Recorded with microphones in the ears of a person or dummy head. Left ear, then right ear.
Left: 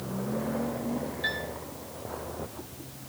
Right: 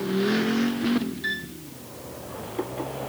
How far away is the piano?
About 5 m.